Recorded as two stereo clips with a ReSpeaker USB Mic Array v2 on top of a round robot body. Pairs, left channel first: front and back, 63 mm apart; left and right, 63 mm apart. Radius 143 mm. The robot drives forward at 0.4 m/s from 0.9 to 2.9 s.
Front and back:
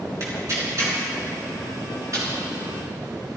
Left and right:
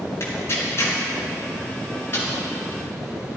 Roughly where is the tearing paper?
Behind left.